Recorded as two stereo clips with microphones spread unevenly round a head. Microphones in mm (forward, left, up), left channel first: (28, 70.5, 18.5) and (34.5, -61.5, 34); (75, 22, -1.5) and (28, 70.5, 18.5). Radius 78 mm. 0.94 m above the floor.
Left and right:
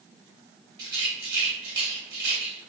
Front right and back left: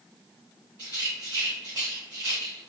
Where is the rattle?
145° right, 1.2 m.